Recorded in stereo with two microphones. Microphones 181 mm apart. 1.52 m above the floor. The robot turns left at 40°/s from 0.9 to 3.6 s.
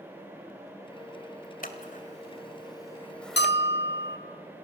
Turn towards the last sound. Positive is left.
turn(degrees=75)  # may be behind; listen again after turning